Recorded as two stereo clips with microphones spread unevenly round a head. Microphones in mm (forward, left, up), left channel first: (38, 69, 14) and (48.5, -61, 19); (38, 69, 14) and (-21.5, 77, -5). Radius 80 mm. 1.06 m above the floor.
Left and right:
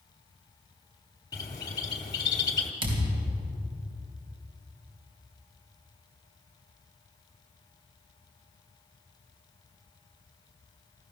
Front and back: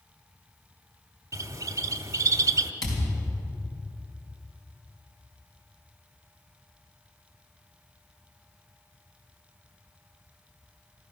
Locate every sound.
1.3 s a bird: 150° left, 1.0 m
2.8 s a thud: 35° right, 3.5 m